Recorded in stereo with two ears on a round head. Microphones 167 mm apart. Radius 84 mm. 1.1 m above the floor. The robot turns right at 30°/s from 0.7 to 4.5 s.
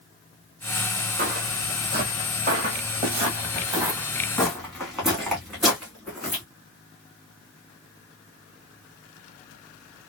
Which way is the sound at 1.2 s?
50° right (ahead or behind).